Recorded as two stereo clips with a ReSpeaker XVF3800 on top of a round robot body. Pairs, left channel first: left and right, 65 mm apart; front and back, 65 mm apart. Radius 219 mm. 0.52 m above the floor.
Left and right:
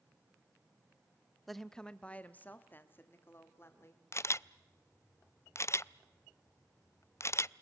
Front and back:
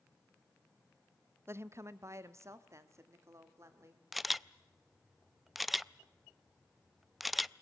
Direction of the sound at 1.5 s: Straight behind.